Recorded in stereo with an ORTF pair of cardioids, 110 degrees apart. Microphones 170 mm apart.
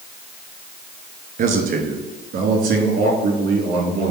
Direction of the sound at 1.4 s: 55° right.